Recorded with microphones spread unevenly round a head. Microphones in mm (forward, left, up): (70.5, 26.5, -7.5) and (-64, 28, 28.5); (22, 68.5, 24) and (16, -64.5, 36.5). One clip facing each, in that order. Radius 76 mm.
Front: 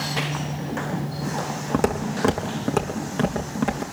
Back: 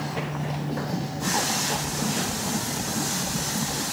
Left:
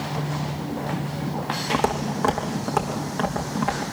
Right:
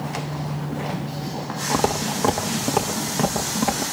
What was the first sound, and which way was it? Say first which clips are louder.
Footsteps: front 6 dB, right 2 dB; 15° right.